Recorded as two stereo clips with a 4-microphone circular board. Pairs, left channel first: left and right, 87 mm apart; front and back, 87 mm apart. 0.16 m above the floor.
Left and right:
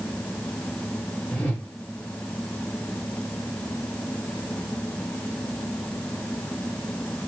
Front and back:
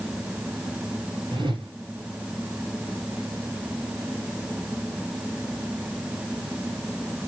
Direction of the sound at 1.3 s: 170° left.